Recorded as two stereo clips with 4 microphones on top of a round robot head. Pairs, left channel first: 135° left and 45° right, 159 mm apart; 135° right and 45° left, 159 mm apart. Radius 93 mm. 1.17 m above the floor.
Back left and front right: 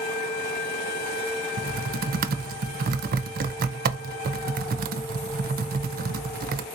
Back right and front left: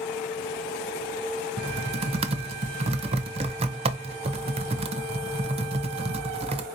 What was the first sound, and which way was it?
Typing on a keyboard, 10° right.